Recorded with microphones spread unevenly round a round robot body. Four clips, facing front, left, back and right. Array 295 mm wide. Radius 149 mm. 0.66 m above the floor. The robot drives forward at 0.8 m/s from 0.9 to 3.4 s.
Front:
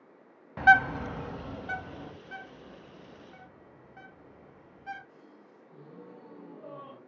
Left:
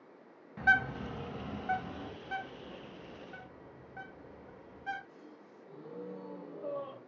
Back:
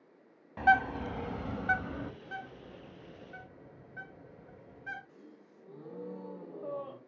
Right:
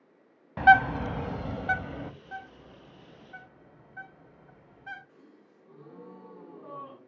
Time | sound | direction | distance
0.6 | a bird | 75° right | 0.8 m
2.2 | a bird | 125° left | 1.9 m
5.1 | a gasp | 145° left | 3 m